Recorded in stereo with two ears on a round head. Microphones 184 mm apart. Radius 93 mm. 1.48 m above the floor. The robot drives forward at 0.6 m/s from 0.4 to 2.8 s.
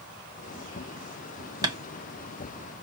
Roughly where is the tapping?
Centre.